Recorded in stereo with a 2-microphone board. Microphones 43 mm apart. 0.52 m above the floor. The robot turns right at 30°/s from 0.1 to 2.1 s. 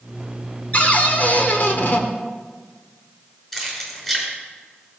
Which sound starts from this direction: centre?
Keys jangling, at 3.5 s.